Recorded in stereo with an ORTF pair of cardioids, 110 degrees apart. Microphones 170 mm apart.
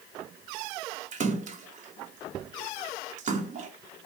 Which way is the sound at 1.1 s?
50° right.